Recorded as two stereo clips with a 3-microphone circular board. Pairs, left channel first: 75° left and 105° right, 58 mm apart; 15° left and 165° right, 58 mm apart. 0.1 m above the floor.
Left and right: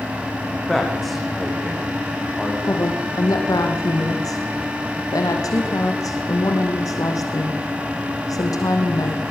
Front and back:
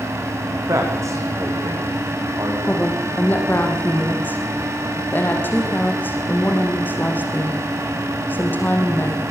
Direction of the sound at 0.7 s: 165° left.